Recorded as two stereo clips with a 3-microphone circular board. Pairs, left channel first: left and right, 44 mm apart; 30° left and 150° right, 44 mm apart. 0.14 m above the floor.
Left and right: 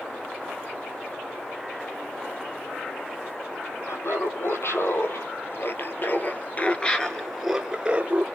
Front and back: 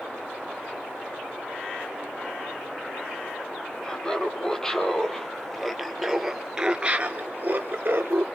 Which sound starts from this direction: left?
Laughter, at 3.8 s.